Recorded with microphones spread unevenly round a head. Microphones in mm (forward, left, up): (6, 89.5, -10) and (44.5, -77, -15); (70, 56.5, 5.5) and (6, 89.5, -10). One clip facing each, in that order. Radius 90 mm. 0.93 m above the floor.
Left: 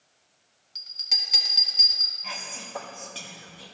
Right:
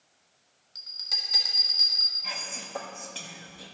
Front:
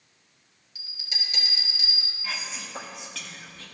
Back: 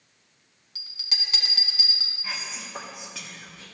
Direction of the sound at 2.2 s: 160° right.